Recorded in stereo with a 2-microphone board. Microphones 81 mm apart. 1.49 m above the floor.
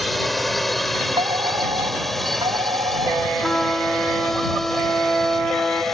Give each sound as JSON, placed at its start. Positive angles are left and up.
{"t": 0.0, "sound": "a drone", "side_deg": 0}
{"t": 1.2, "sound": "a fire alarm", "side_deg": -80}
{"t": 3.4, "sound": "a trumpet", "side_deg": 5}